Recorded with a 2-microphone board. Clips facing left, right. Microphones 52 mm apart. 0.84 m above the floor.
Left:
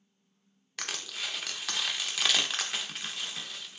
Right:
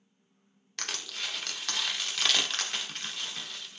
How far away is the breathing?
I don't hear breathing.